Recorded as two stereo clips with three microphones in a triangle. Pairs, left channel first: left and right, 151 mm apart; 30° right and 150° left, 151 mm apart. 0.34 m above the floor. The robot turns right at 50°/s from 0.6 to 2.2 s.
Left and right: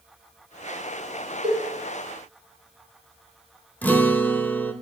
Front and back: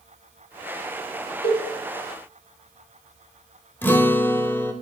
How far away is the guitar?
About 0.6 m.